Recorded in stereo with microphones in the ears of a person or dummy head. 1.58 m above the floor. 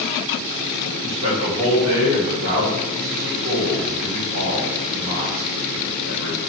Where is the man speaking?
85° right, 1.4 m.